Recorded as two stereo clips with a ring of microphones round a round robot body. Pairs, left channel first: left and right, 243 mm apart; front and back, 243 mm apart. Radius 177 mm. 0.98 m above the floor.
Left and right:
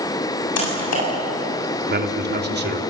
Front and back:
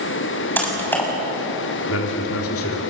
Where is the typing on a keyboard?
85° left, 7 m.